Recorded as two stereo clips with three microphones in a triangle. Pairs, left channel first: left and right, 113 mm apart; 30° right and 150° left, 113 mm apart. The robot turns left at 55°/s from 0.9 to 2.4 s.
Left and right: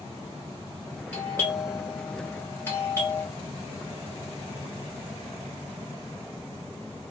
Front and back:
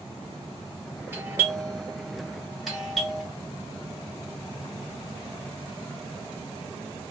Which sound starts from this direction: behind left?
A doorbell, at 1.1 s.